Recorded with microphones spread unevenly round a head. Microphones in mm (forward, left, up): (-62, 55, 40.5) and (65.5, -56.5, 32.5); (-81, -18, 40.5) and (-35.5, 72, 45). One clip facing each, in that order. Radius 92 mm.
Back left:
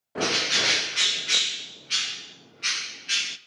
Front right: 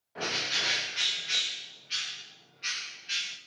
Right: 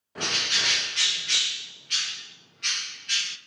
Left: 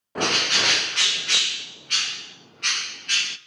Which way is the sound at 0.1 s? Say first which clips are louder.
Back left 9 dB, left 7 dB; 105° left.